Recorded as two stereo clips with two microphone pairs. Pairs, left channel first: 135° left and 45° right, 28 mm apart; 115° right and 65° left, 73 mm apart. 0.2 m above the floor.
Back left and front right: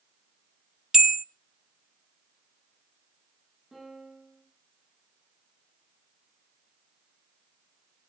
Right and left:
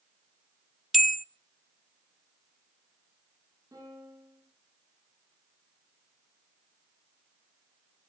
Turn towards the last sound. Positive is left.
turn(degrees=30)